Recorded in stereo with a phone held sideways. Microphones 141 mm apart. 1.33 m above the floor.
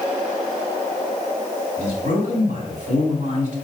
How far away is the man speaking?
About 4.5 m.